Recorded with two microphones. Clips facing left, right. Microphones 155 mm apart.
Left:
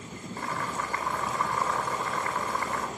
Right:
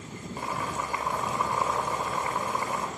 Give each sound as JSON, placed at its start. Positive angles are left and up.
{"t": 0.4, "sound": "boiling", "side_deg": -15, "distance_m": 4.5}